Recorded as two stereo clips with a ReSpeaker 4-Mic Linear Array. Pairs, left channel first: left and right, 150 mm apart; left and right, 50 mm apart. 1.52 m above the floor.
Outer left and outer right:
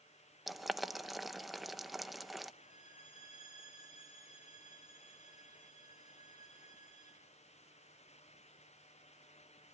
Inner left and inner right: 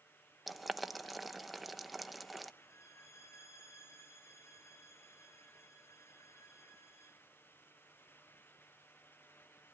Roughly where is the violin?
Left.